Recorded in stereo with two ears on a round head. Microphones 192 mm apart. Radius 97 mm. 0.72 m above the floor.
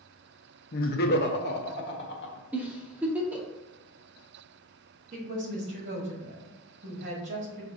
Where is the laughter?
40° left (ahead or behind), 0.6 m; by 2.4 s 60° left (ahead or behind), 1.4 m.